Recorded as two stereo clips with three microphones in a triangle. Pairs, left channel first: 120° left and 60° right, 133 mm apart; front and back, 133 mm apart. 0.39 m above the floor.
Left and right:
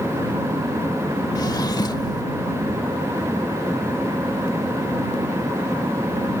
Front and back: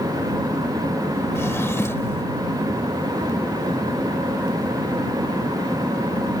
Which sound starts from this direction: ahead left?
A drawer, at 1.4 s.